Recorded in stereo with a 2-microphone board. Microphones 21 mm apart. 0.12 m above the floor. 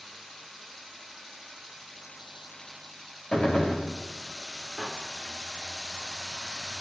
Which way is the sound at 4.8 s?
60° left (ahead or behind).